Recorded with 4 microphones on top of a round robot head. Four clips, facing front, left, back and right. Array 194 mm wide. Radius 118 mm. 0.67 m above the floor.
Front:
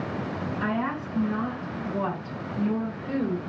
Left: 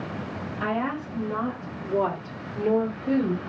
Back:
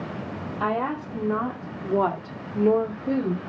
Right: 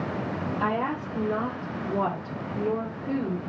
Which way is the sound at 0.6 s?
150° right.